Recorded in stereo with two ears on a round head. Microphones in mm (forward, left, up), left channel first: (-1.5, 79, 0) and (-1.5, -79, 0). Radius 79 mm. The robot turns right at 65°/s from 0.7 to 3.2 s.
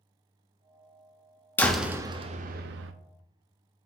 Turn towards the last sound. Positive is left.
turn(degrees=-85)